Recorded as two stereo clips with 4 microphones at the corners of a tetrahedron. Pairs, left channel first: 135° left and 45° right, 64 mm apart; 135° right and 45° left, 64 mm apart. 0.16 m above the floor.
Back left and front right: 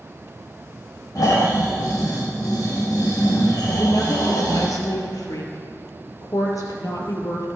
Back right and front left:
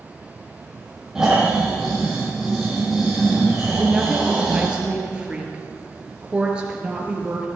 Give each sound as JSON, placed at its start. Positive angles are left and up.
{"t": 1.1, "sound": "snoring", "azimuth_deg": 130, "distance_m": 6.5}
{"t": 3.7, "sound": "a woman speaking", "azimuth_deg": 120, "distance_m": 3.5}